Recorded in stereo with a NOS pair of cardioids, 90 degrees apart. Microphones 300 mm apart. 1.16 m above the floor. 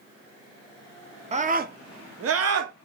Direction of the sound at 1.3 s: 20° right.